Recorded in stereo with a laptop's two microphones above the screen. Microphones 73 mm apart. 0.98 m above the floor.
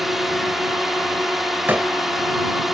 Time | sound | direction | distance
0.0 | a drone | 5° right (ahead or behind) | ?
1.7 | a door slam | 25° right (ahead or behind) | ?